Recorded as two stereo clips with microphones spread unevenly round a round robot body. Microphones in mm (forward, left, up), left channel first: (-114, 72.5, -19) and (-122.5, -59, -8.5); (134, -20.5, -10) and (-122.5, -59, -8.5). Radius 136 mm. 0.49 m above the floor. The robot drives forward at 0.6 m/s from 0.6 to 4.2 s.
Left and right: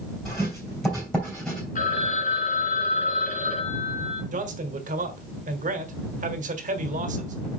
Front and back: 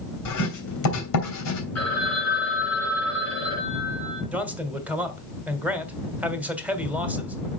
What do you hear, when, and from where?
0.2 s writing: straight ahead, 3 m
1.8 s a phone ringing: 95° left, 3.5 m; by 4.2 s 115° left, 4 m
4.3 s a man speaking: 90° right, 1.3 m